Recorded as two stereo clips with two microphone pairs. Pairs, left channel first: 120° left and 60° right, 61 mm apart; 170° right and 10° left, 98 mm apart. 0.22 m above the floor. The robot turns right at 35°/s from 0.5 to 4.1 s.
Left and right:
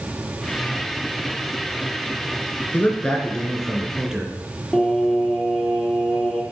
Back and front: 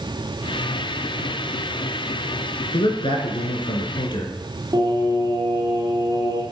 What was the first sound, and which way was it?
A man speaking, straight behind.